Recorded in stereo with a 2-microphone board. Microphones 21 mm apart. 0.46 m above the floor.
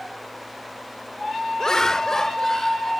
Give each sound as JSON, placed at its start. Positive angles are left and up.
{"t": 1.6, "sound": "laughter", "side_deg": 35}